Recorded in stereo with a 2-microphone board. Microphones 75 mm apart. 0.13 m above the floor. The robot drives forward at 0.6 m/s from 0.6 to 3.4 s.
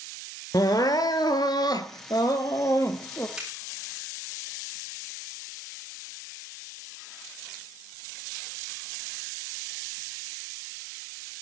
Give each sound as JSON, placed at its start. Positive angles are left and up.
{"t": 0.5, "sound": "crying", "side_deg": 50, "distance_m": 1.1}
{"t": 3.4, "sound": "a finger snap", "side_deg": -10, "distance_m": 4.5}